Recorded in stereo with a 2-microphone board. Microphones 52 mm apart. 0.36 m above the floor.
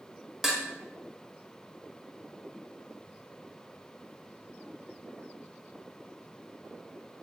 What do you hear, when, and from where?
0.4 s dishes clattering: 5° right (ahead or behind), 0.7 m